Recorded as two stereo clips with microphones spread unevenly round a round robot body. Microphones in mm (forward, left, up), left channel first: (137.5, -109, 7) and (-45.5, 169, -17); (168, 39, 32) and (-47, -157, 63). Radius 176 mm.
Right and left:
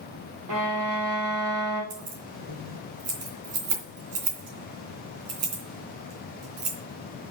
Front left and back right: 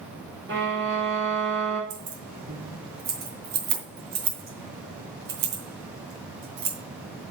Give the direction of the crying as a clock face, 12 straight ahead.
No crying in this recording.